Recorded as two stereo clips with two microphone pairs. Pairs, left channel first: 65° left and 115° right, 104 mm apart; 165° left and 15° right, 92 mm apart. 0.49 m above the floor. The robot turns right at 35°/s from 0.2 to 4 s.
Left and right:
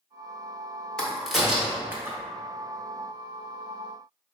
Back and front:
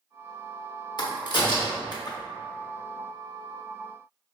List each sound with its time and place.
1.0 s a crack: 145° left, 0.6 m; by 2.2 s 175° right, 0.6 m